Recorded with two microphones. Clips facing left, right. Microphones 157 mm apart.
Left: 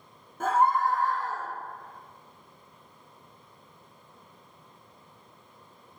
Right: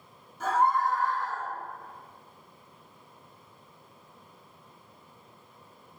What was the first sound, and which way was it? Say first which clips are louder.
A scream: left 2 dB; 50° left (ahead or behind).